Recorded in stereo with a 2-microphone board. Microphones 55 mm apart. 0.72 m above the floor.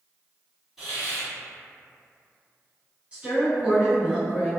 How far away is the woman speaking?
About 1.0 m.